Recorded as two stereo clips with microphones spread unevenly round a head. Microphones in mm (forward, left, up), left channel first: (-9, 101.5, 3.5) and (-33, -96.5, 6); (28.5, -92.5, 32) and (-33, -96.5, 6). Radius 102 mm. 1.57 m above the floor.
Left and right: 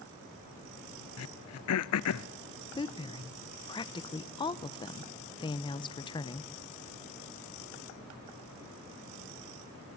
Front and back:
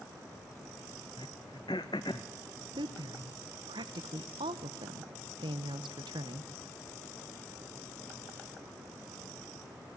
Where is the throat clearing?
65° left, 0.6 m.